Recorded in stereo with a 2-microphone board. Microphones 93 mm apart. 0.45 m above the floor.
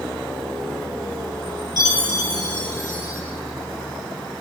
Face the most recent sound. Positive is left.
turn(degrees=45)  # may be behind; listen again after turning